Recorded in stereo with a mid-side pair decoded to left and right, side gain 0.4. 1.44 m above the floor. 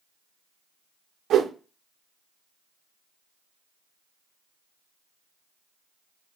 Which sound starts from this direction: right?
A whoosh, at 1.3 s.